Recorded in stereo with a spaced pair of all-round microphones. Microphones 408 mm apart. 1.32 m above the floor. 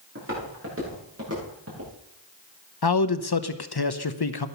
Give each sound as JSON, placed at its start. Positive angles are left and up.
{"t": 0.1, "sound": "footsteps", "side_deg": -30, "distance_m": 9.5}
{"t": 2.8, "sound": "a man speaking", "side_deg": 60, "distance_m": 0.9}